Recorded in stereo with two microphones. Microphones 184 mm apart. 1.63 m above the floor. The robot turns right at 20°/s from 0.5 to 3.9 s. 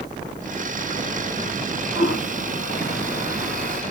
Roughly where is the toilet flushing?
Left.